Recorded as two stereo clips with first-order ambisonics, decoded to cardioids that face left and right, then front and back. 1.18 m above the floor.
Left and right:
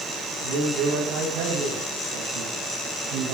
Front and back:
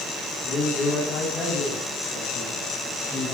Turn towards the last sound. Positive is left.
turn(degrees=-85)